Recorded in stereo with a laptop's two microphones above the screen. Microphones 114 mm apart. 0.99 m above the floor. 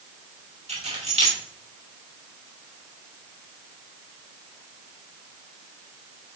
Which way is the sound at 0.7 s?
70° right (ahead or behind).